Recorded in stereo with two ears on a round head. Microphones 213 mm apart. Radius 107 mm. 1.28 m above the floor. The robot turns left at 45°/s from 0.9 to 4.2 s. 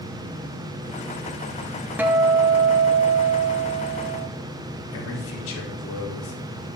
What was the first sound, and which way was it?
A guitar, 10° right.